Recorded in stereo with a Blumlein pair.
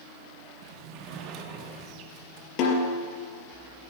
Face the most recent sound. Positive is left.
turn(degrees=40)